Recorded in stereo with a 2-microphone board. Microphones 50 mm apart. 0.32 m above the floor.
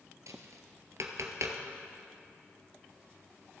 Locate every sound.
0.3 s tapping: 80° right, 1.2 m